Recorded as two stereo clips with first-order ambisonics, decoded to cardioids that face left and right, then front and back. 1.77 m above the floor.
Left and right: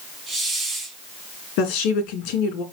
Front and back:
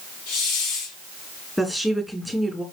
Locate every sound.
0.3 s a hiss: 10° right, 5 m
1.6 s a woman speaking: 85° left, 3 m